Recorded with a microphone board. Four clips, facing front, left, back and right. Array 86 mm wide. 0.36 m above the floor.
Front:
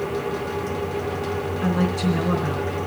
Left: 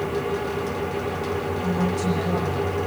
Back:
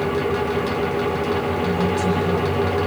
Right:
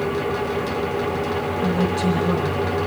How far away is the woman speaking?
About 3.5 m.